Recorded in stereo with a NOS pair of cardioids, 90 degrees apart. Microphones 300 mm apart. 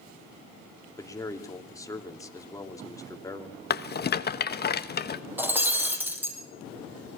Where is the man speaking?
10° left, 3 m.